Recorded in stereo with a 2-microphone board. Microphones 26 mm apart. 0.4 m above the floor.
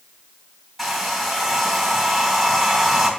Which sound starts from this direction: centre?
A hair dryer, at 0.8 s.